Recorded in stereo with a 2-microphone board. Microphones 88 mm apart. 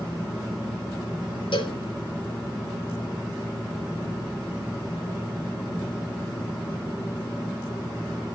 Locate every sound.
1.5 s a cowbell: 70° left (ahead or behind), 3.5 m